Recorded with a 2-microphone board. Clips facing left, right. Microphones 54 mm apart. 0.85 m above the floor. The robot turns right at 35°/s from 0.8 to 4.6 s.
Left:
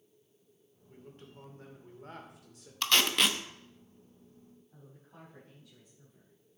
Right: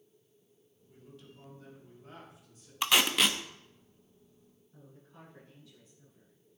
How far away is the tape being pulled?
About 0.8 m.